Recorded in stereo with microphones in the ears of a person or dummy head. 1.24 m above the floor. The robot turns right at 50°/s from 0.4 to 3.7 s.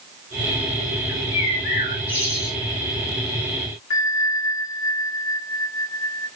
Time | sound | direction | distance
1.1 | a bird | 70° left | 1.3 m
3.9 | a bell | 35° left (ahead or behind) | 1.0 m